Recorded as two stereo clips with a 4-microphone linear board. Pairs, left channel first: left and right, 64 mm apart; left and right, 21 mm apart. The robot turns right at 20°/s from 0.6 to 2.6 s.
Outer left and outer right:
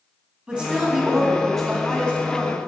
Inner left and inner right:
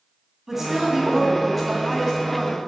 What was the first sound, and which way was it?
A woman speaking, 15° right.